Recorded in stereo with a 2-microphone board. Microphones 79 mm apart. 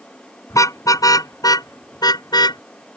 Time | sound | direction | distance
0.5 | a car horn | 45° left (ahead or behind) | ?